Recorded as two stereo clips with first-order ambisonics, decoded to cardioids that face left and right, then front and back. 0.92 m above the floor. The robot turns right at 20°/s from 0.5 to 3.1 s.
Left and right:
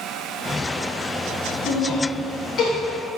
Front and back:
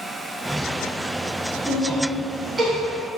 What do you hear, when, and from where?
1.7 s laughter: 100° left, 1.0 m; by 2.7 s 120° left, 1.0 m